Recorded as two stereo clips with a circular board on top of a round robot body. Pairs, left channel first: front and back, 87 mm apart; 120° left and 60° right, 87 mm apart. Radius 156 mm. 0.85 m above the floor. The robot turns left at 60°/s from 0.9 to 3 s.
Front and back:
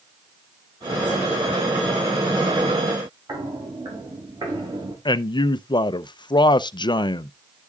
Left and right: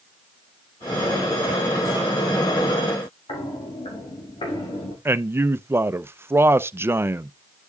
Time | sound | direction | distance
3.3 | footsteps | 135° left | 4.5 m
5.0 | a man speaking | 5° right | 0.6 m